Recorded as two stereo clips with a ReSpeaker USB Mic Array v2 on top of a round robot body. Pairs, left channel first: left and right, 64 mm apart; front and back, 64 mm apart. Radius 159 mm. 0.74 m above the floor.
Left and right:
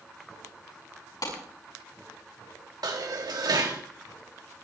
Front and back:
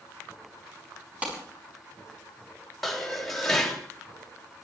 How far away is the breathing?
I don't hear breathing.